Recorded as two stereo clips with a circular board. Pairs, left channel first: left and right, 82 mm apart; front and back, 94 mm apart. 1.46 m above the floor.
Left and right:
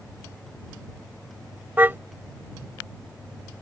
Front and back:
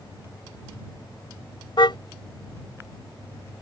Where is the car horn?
25° right.